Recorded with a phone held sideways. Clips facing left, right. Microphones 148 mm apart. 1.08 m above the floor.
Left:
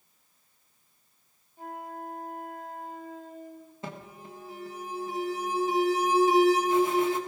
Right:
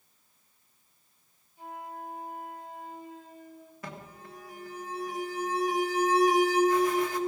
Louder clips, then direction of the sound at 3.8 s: Left 3 dB; 25° left (ahead or behind).